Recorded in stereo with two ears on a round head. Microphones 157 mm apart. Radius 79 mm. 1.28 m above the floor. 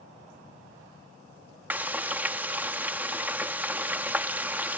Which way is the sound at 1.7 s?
10° right (ahead or behind).